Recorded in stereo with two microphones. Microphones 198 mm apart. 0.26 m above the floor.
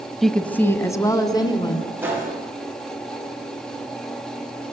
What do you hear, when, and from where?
0.2 s a woman speaking: centre (ahead or behind), 1.3 m; by 1.9 s 25° left (ahead or behind), 3 m
2.0 s a gunshot: 10° right (ahead or behind), 8.5 m